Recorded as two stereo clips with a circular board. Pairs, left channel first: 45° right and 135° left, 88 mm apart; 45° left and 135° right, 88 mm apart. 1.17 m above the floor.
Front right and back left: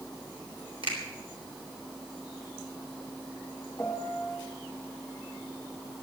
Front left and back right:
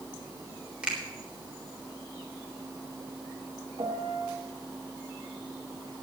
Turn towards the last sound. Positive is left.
turn(degrees=-110)